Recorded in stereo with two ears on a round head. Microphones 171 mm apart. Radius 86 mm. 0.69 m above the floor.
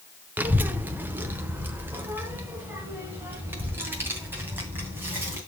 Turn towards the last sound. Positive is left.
turn(degrees=-10)  # may be behind; listen again after turning